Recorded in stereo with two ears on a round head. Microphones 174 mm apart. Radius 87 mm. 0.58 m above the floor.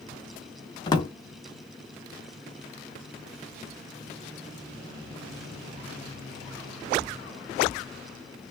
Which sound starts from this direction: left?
A drawer, at 0.9 s.